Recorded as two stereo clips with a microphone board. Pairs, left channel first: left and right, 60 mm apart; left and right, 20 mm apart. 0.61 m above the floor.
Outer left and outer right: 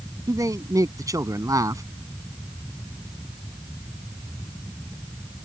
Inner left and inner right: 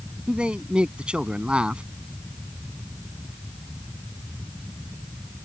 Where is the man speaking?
65° right (ahead or behind).